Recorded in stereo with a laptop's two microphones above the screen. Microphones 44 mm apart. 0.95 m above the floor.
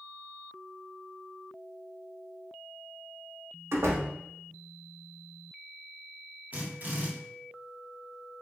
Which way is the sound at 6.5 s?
40° right (ahead or behind).